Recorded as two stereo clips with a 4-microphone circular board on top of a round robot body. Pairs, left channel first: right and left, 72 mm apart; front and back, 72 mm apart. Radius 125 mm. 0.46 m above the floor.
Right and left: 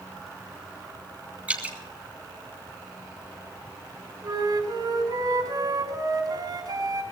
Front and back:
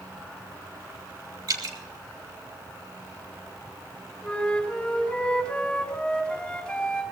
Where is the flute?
80° left, 5 m.